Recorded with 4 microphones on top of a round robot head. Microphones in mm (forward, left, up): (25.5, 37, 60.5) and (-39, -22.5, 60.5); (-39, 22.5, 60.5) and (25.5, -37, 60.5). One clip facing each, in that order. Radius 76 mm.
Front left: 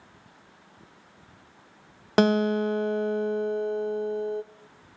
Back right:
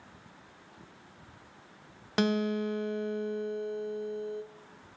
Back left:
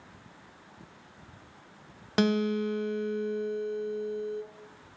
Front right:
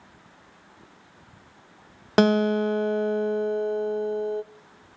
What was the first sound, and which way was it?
A guitar, straight ahead.